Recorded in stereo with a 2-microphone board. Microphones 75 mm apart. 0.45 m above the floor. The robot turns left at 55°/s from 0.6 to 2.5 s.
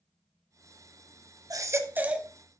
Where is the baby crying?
130° right, 0.8 m; by 2.3 s 170° right, 0.8 m.